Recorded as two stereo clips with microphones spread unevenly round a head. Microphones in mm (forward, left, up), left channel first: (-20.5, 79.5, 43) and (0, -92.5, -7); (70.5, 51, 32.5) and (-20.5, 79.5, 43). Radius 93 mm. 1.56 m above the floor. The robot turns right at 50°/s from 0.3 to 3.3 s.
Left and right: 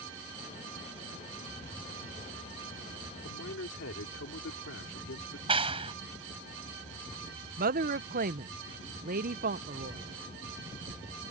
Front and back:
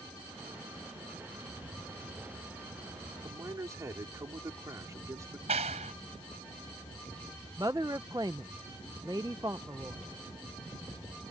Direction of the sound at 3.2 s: 100° left.